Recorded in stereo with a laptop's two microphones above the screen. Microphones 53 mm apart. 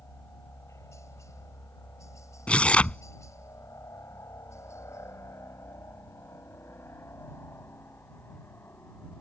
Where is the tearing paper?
25° left (ahead or behind).